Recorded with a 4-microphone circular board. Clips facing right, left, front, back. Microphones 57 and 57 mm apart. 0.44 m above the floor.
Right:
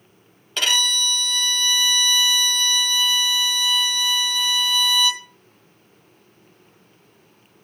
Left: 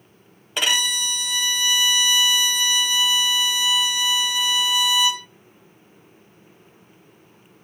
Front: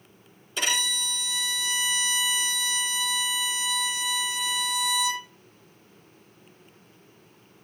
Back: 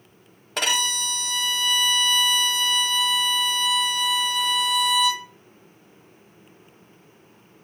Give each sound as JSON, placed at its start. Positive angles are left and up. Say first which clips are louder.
{"t": 0.6, "sound": "a violin", "louder": "even, back 4 dB", "azimuth_deg": 165, "distance_m": 1.2}